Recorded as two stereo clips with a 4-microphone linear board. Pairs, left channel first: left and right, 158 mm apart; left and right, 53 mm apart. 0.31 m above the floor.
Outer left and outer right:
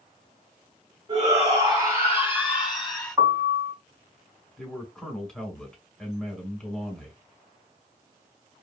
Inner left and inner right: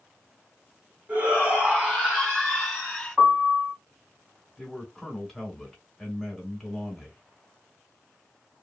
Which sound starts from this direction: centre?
A man speaking, at 4.6 s.